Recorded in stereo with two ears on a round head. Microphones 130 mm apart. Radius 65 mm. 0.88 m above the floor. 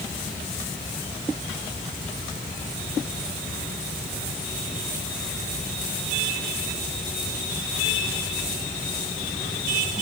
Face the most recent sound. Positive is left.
No sound to turn to.